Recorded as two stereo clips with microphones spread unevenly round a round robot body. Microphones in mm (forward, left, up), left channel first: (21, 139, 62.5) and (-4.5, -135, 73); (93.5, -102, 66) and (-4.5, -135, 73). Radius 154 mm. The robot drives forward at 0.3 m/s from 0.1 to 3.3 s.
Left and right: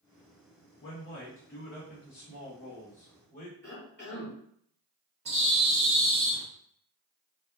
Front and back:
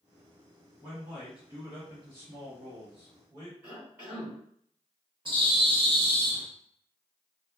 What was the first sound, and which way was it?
A man speaking, 120° left.